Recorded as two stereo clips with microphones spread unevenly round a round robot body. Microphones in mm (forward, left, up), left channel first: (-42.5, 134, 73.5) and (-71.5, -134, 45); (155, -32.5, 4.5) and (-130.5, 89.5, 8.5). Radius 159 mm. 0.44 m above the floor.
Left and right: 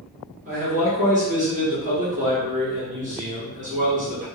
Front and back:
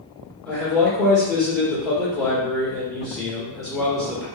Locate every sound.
0.5 s a man speaking: 110° right, 1.6 m